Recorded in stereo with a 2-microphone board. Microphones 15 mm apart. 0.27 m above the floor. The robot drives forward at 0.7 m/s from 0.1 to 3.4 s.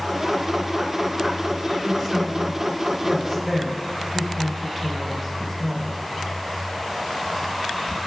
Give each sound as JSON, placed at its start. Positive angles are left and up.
{"t": 1.8, "sound": "a woman speaking", "side_deg": -25, "distance_m": 3.5}